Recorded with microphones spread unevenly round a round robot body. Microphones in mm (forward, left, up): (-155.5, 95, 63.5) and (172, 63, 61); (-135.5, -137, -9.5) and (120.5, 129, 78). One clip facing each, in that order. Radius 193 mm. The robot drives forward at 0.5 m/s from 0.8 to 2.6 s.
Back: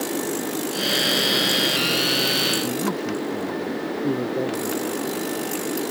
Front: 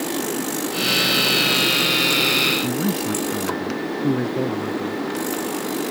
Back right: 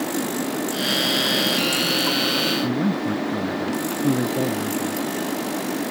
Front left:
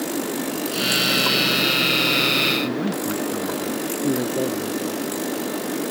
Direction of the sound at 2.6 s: 70° right.